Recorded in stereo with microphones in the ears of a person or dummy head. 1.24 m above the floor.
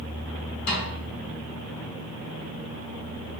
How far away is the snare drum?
About 1.6 m.